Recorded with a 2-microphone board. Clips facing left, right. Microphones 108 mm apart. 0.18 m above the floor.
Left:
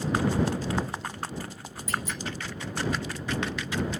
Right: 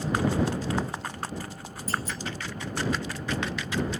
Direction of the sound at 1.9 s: 35° right (ahead or behind).